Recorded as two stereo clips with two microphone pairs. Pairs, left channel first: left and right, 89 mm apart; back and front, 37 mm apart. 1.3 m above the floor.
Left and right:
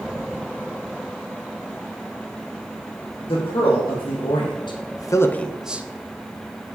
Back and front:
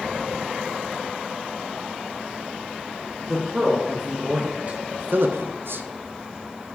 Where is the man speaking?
80° left, 1.6 m; by 5.8 s 25° right, 0.6 m.